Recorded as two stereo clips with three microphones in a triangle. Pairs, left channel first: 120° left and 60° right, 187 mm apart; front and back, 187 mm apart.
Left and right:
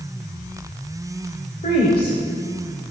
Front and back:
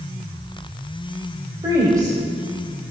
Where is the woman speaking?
120° left, 1.4 m.